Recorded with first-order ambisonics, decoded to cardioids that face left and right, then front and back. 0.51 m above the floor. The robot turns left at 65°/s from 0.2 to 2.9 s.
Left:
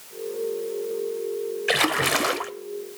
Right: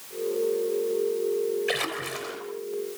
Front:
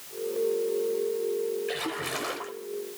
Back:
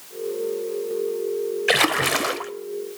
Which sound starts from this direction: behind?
A splash, at 1.7 s.